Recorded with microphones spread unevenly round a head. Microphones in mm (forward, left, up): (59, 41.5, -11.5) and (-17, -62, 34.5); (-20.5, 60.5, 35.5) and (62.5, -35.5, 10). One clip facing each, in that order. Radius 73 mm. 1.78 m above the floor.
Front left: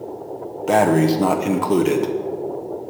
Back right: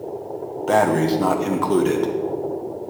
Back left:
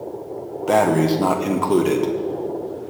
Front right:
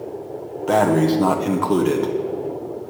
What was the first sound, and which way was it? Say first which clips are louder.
Breathing: front left 2 dB, even; 175° left.